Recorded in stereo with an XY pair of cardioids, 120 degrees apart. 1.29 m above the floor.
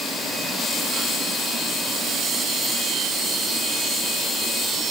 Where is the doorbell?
I don't hear a doorbell.